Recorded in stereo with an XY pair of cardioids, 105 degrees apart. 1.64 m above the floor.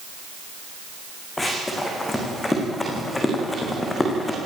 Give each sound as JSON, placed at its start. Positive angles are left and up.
{"t": 1.4, "sound": "running footsteps", "azimuth_deg": 20, "distance_m": 7.5}